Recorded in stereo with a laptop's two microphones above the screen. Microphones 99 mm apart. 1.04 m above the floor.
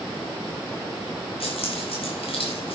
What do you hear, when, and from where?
1.4 s keys jangling: 70° left (ahead or behind), 4 m